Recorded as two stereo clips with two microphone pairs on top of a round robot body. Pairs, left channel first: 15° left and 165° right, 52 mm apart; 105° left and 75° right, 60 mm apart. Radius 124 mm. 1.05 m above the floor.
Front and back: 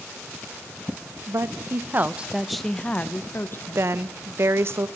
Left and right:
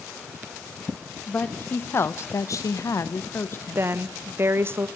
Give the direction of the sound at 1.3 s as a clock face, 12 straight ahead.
6 o'clock.